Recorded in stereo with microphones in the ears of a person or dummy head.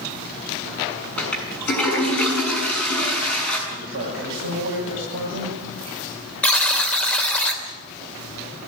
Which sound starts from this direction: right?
A man speaking, at 3.7 s.